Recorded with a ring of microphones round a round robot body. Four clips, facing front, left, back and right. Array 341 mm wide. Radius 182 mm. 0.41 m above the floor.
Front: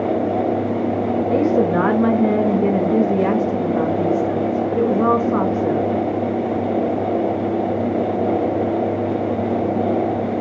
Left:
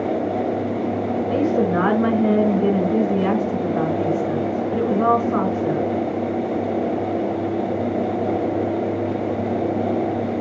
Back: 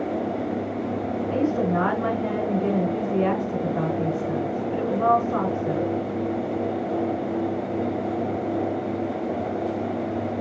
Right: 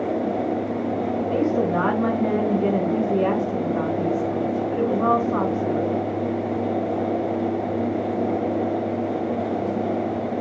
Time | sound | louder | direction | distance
1.3 | a woman speaking | left 3 dB, front 6 dB | 10° left | 5.5 m